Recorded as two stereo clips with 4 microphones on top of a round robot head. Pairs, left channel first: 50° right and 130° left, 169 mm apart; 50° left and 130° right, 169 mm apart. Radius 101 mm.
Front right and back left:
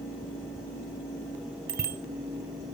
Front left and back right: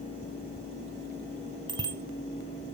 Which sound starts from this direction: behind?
A bicycle bell, at 1.7 s.